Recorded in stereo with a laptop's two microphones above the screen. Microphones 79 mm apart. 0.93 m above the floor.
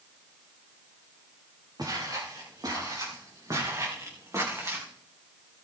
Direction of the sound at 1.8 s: 55° right (ahead or behind).